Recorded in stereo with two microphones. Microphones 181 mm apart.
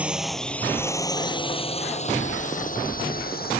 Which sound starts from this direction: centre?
A drone, at 0.0 s.